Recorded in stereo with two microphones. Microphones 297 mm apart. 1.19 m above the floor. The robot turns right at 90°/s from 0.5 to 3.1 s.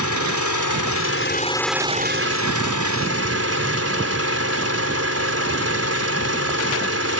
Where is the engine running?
70° left; by 7.2 s 55° right.